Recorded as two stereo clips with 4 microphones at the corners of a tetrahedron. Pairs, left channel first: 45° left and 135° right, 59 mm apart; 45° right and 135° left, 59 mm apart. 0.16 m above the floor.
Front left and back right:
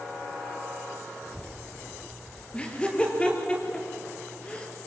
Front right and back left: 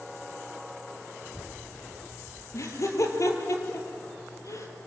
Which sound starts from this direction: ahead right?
Laughter, at 2.5 s.